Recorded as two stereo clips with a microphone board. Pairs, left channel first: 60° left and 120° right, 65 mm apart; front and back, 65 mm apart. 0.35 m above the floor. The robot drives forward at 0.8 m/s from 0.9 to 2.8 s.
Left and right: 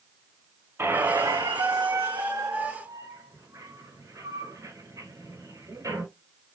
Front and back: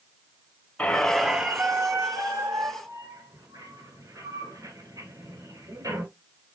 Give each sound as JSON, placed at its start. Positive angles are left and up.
{"t": 0.8, "sound": "a squeak", "azimuth_deg": -65, "distance_m": 0.7}